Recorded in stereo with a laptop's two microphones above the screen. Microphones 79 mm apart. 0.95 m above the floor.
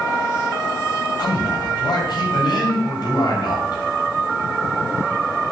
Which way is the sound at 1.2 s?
70° left (ahead or behind).